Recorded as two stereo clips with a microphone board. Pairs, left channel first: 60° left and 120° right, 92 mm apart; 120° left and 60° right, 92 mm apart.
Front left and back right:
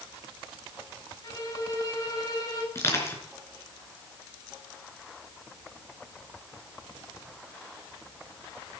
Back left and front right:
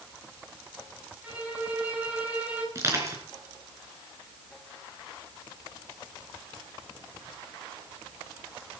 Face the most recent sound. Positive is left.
turn(degrees=0)